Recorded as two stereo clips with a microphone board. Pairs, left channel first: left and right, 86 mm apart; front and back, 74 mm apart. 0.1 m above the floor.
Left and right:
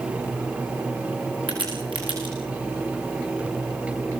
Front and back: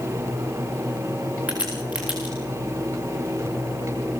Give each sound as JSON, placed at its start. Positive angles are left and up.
{"t": 1.5, "sound": "a crack", "azimuth_deg": -105, "distance_m": 9.5}